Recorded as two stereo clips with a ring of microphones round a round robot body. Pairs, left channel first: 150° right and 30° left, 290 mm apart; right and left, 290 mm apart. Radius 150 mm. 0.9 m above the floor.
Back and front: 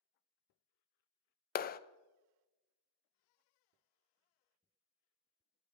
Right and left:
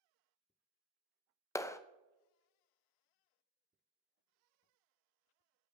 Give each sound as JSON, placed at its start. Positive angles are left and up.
{"t": 1.6, "sound": "a clap", "azimuth_deg": -160, "distance_m": 0.5}